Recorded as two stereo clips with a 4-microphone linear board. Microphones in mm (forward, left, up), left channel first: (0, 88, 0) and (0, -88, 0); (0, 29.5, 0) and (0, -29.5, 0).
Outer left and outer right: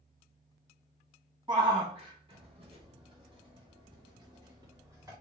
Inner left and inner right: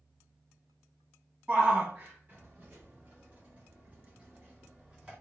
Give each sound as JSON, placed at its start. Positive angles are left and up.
{"t": 1.5, "sound": "a shout", "side_deg": -25, "distance_m": 1.4}